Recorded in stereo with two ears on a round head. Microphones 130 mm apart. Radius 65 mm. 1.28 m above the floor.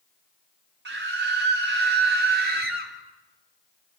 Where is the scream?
85° right, 3.5 m; by 2.9 s 75° right (ahead or behind), 4 m.